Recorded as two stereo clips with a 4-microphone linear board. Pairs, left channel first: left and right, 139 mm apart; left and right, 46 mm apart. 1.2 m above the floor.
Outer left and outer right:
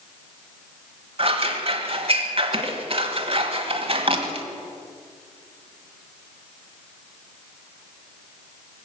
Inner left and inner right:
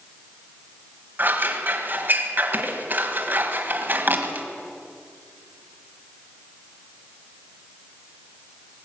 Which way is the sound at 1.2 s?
45° right (ahead or behind).